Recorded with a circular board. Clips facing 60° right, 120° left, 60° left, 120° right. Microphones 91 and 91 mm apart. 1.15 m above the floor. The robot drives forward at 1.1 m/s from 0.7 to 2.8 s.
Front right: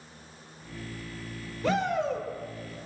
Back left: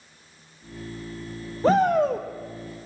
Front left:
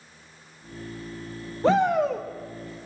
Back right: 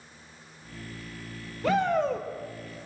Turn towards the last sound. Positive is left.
turn(degrees=165)